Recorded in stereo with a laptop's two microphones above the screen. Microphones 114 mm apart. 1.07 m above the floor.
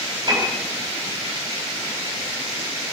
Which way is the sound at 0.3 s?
40° right (ahead or behind).